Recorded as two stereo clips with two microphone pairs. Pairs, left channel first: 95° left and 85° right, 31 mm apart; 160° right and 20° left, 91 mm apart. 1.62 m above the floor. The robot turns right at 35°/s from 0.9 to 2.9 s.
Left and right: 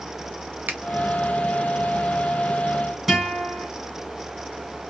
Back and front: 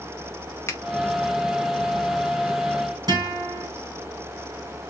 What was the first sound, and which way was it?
A finger snap, 100° right.